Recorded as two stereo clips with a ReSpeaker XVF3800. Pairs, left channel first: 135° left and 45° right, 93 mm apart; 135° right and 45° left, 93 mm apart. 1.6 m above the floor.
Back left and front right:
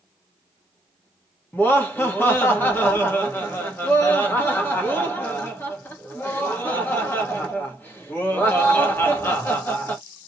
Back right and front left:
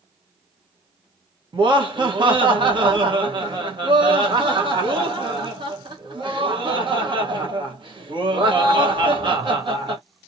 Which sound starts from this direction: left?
Laughter, at 1.5 s.